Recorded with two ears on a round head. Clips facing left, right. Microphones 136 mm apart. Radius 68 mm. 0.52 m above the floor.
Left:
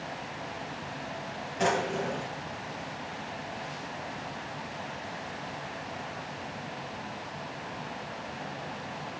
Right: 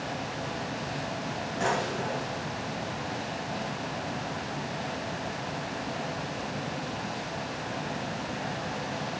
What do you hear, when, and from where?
1.6 s a drawer: 25° left (ahead or behind), 3 m